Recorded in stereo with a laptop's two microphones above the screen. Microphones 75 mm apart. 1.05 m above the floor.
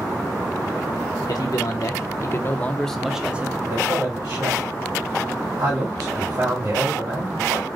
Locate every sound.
1.3 s a man speaking: 65° left (ahead or behind), 1.1 m; by 3.6 s 25° right (ahead or behind), 0.8 m
3.7 s a man speaking: 70° right (ahead or behind), 2 m